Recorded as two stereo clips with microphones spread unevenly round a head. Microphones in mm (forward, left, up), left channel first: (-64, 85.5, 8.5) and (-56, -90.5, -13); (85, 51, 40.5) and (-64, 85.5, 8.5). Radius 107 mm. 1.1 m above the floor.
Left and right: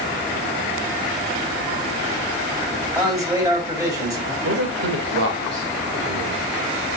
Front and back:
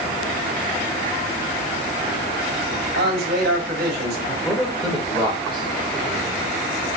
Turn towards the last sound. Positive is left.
turn(degrees=-95)